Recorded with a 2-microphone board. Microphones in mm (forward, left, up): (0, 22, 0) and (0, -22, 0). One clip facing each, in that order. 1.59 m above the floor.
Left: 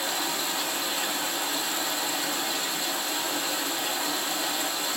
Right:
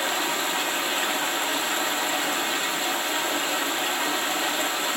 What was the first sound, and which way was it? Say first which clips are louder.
Running water: right 4 dB; 50° right (ahead or behind).